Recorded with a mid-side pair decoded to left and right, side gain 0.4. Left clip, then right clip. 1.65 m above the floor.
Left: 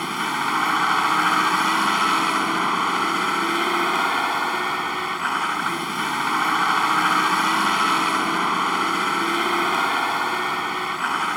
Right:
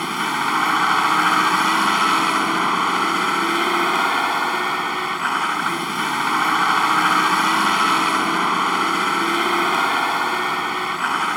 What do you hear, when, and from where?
0.0 s a vehicle: 15° right